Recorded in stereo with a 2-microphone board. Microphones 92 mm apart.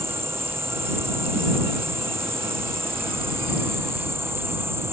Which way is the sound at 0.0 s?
25° right (ahead or behind).